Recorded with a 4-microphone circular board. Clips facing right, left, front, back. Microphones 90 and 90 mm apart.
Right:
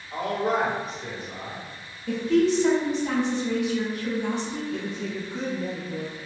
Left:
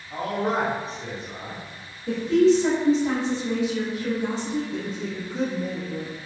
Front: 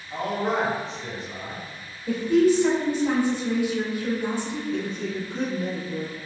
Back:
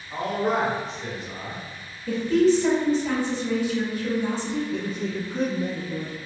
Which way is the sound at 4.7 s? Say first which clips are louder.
Even, even; 100° left.